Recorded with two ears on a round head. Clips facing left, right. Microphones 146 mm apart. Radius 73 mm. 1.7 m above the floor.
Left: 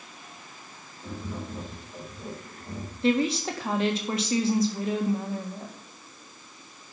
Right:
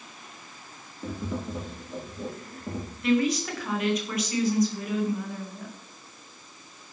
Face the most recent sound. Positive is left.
turn(degrees=25)  # may be behind; listen again after turning